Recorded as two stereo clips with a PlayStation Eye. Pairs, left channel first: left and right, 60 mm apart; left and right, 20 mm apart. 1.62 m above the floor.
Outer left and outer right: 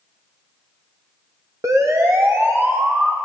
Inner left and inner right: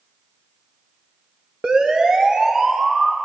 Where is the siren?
60° right (ahead or behind), 2 m; by 3.1 s 30° right (ahead or behind), 3.5 m.